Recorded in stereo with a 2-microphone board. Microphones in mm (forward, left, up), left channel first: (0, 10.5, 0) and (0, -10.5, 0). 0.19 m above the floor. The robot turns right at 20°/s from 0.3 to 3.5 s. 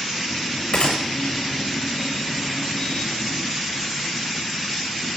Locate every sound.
0.7 s a gunshot: 55° left (ahead or behind), 5 m; by 1.0 s 50° left (ahead or behind), 5 m